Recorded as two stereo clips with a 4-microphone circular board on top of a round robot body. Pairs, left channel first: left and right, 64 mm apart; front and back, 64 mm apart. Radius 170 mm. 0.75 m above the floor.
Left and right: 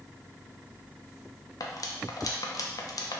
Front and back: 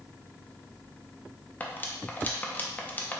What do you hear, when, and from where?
1.6 s cutlery clinking: 65° left, 0.7 m